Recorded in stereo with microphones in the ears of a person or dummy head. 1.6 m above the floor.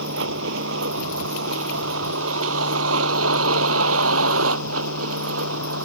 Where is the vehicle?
75° right (ahead or behind); by 5.9 s 80° right.